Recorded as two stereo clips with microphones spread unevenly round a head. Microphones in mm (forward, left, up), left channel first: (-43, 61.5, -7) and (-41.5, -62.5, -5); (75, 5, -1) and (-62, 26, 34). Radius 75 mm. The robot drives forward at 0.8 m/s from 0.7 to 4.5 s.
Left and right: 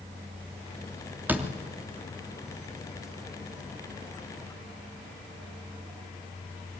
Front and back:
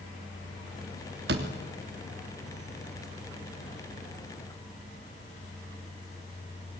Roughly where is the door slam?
Behind.